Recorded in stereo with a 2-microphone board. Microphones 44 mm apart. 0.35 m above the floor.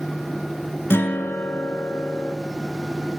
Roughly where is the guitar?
Left.